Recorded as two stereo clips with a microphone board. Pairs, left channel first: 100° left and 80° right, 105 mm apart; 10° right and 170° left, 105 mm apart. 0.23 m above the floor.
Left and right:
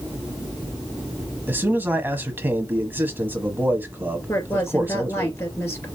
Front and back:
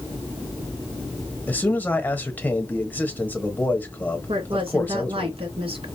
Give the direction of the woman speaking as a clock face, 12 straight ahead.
7 o'clock.